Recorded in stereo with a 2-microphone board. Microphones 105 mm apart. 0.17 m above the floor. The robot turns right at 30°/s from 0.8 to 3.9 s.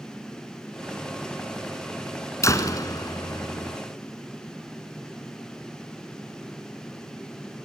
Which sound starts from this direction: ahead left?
A door slam, at 2.4 s.